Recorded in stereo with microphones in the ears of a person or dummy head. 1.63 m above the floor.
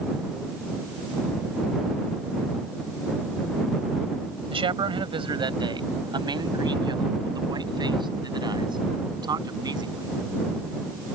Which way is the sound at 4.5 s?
25° right (ahead or behind).